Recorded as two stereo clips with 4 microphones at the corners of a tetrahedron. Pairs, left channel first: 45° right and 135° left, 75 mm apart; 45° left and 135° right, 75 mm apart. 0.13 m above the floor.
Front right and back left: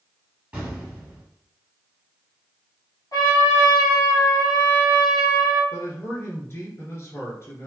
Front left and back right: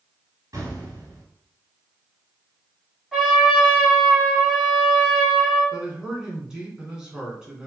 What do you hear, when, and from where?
0.5 s an explosion: 155° right, 1.5 m
3.1 s a trumpet: 45° right, 2.0 m
5.7 s a man speaking: 60° right, 1.3 m